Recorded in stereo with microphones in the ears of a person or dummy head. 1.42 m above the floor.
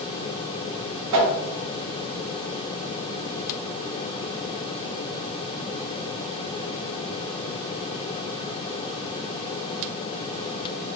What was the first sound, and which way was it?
A whoosh, 80° right.